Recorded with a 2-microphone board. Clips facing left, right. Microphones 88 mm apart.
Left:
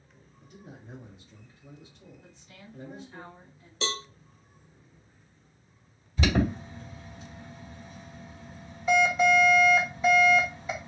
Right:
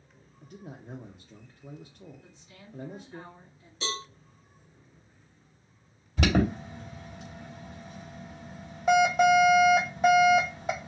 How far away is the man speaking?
About 0.6 m.